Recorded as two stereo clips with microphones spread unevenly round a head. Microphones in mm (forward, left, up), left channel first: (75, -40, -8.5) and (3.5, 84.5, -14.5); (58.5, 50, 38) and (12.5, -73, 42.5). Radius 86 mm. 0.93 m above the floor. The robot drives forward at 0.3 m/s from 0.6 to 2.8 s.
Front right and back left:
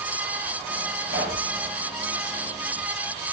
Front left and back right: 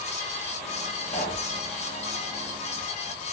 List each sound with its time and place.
1.1 s a pop: 135° left, 8.5 m